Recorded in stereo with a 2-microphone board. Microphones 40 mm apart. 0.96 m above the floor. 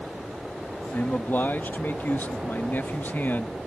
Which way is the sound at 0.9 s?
50° left (ahead or behind).